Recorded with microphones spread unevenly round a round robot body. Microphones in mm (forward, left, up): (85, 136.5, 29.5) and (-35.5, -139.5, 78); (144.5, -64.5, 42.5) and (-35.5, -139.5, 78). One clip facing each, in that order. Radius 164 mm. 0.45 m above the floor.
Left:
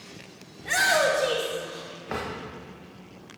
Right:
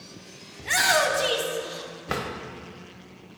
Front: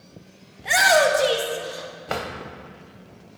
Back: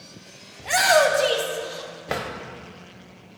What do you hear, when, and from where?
0.6 s a shout: 15° right, 0.8 m; by 1.9 s 60° right, 1.5 m
2.1 s a drawer: 75° right, 1.0 m